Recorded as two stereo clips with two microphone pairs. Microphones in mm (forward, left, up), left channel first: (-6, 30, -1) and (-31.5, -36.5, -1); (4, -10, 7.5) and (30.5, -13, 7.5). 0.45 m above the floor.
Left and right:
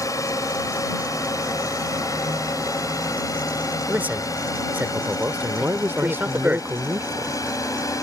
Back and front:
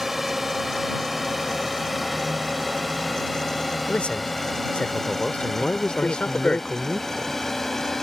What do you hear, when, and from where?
0.0 s a drone: 75° left; by 8.0 s 95° left
3.9 s a man speaking: 170° right
5.6 s a man speaking: 155° right